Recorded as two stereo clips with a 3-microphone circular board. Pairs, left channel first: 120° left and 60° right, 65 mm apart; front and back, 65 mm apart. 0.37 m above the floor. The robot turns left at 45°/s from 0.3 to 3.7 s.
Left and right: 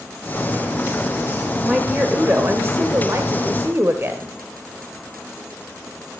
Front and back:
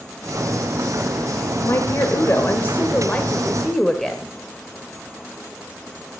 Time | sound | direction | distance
1.6 | a woman speaking | 10° left | 1.3 m